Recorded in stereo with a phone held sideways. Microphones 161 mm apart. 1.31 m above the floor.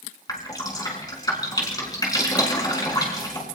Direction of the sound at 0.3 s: 25° left (ahead or behind).